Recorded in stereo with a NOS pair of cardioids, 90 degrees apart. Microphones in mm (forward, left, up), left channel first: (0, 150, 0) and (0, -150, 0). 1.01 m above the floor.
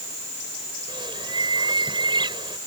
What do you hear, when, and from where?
0.9 s a bird: 15° right